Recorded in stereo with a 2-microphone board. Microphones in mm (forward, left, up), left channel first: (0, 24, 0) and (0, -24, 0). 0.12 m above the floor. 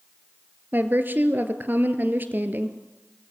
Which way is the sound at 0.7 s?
45° right (ahead or behind).